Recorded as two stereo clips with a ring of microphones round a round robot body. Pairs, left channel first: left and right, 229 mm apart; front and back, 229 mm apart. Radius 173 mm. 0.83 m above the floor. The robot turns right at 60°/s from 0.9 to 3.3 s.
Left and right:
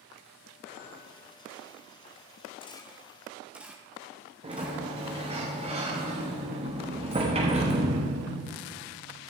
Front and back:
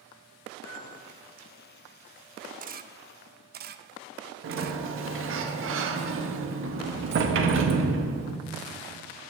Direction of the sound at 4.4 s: 155° right.